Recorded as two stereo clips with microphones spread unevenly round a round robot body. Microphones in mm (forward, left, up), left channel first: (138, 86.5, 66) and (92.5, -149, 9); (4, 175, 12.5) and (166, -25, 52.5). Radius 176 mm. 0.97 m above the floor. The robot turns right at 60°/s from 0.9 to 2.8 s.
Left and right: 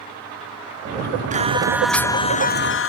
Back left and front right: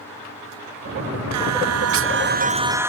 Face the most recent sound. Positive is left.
turn(degrees=35)